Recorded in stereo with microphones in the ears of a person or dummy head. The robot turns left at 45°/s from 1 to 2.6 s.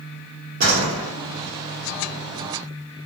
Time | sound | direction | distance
0.6 | a door slam | 55° right (ahead or behind) | 1.5 m